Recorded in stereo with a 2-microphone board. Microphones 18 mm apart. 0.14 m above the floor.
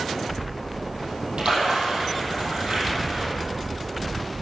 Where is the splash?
70° right (ahead or behind), 3.5 m.